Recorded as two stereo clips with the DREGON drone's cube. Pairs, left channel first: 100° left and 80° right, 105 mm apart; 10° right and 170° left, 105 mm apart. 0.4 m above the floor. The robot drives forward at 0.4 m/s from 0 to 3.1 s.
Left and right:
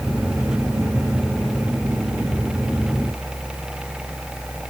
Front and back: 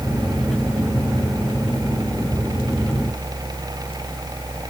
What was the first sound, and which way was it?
Only background noise.